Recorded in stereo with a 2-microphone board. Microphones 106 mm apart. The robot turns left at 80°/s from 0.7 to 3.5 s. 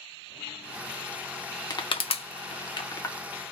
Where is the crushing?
40° left (ahead or behind), 0.5 m; by 3.1 s 20° left (ahead or behind), 0.5 m.